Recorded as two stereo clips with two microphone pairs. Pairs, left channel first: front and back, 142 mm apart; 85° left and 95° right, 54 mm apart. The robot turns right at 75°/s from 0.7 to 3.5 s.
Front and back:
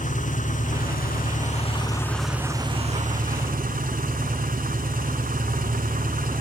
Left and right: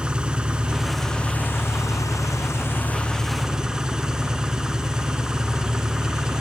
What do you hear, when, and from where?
0.0 s an engine running: 25° right, 0.9 m; by 6.4 s 175° right, 0.9 m